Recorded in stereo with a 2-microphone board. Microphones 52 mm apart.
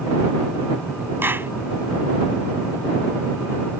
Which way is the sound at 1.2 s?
40° right (ahead or behind).